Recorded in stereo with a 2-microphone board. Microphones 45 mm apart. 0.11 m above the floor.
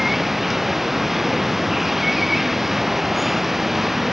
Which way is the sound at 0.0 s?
5° right (ahead or behind).